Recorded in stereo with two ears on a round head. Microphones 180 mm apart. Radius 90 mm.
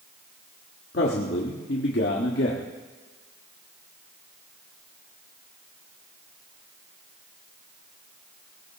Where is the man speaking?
60° left (ahead or behind), 1.6 m.